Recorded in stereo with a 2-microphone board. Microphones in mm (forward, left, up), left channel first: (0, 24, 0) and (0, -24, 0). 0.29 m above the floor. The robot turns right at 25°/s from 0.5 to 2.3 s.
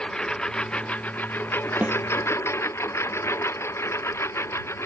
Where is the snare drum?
35° right (ahead or behind); by 2.0 s 40° right (ahead or behind).